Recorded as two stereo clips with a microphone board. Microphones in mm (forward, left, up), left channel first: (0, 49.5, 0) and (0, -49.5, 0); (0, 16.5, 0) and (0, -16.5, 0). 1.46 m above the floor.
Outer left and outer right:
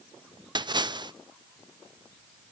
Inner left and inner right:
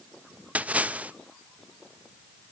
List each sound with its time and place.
0.6 s a splash: 45° right (ahead or behind), 0.6 m